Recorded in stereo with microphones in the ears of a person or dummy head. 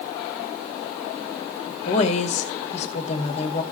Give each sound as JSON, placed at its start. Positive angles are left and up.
{"t": 1.9, "sound": "a woman speaking", "side_deg": 40, "distance_m": 2.0}